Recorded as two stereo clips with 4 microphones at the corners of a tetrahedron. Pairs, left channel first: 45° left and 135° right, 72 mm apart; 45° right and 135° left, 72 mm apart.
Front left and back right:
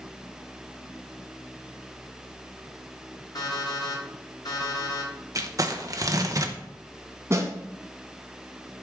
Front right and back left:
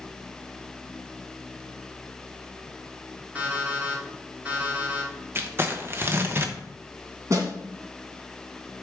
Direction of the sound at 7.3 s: 175° left.